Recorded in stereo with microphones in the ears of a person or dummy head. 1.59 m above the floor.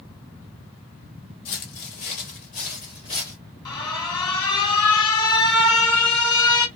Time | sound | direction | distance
1.4 | footsteps | 45° left (ahead or behind) | 2 m
3.6 | an alarm | 25° left (ahead or behind) | 1.9 m